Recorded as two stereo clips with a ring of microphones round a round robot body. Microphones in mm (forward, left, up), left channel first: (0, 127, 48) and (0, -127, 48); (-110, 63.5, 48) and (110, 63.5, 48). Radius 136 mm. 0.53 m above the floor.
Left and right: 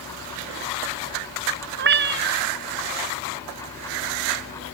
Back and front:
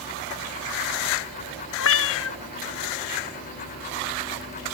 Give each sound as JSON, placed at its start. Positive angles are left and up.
{"t": 1.8, "sound": "a cat meowing", "azimuth_deg": -140}